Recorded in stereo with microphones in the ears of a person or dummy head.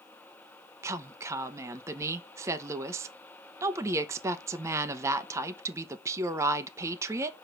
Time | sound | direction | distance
0.8 | a woman speaking | 20° right (ahead or behind) | 0.8 m